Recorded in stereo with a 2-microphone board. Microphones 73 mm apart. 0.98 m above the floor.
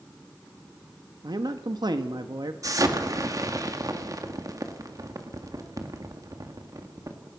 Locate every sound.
1.2 s a man speaking: 70° right (ahead or behind), 1.3 m
2.6 s an explosion: 50° right (ahead or behind), 1.9 m